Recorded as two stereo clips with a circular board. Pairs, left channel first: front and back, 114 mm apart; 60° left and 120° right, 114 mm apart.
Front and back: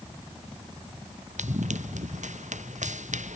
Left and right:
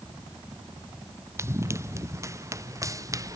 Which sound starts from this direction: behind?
Running footsteps, at 1.4 s.